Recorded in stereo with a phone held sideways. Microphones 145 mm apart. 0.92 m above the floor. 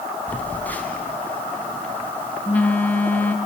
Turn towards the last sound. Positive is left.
turn(degrees=10)  # may be behind; listen again after turning